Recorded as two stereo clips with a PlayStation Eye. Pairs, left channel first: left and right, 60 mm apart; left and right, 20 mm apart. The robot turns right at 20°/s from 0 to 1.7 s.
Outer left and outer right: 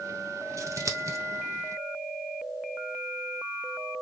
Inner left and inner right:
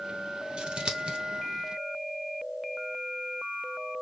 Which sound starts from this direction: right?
Scissors, at 0.6 s.